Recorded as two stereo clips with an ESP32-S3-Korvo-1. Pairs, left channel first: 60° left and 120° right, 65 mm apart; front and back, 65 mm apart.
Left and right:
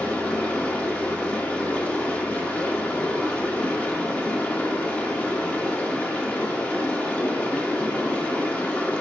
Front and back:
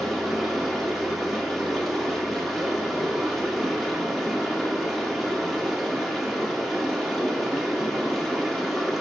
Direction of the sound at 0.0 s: 85° left.